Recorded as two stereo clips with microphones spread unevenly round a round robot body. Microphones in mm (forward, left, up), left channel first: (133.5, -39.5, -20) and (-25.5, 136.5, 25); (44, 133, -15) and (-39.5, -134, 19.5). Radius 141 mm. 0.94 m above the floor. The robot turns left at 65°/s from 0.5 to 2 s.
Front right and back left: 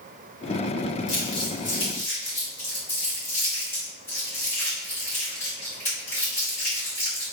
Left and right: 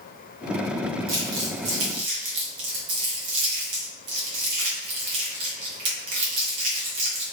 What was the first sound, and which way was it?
Crumpling, 60° right.